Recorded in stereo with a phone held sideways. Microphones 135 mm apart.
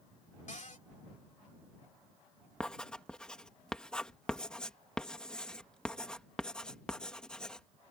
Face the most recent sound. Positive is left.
turn(degrees=5)  # may be behind; listen again after turning